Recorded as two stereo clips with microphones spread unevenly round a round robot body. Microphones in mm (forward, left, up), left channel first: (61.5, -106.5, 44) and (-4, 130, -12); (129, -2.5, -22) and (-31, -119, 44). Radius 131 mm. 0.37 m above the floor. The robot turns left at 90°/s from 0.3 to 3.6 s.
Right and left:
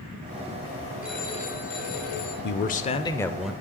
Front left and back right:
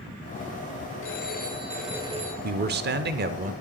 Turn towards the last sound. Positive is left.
turn(degrees=155)